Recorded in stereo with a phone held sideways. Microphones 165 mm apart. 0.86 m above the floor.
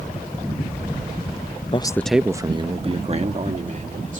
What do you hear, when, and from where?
1.7 s a man speaking: 35° left (ahead or behind); by 4.2 s 50° right (ahead or behind)